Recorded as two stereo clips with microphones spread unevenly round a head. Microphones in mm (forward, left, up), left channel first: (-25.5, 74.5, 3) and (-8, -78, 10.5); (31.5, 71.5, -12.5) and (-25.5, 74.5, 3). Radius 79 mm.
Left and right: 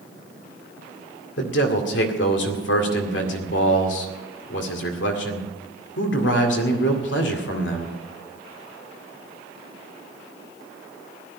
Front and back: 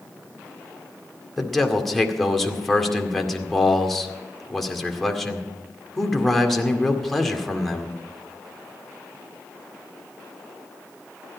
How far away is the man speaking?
About 2 m.